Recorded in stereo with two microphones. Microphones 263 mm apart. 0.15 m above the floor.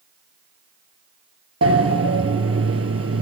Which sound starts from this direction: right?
A sliding door, at 1.6 s.